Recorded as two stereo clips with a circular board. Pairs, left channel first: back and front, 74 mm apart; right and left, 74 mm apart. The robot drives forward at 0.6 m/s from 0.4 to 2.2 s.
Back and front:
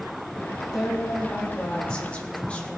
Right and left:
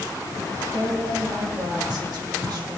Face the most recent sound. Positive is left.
turn(degrees=105)